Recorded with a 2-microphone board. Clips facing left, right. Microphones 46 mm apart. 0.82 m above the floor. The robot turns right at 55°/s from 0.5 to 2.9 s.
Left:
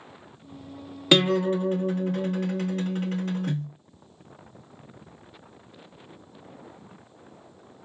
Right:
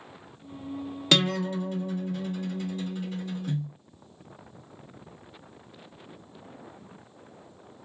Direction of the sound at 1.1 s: 15° left.